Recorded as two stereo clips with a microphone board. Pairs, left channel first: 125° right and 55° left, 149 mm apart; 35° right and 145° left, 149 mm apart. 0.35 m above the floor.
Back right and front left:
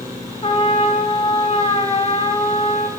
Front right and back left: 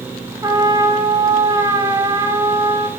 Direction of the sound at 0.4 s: 160° right.